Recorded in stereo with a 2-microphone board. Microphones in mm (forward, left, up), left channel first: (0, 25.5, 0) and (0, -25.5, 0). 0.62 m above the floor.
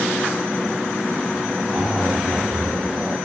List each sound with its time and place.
1.7 s a zipper: 10° right (ahead or behind), 0.8 m